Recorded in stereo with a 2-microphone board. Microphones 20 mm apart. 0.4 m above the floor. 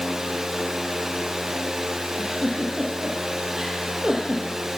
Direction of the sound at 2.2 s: 30° right (ahead or behind).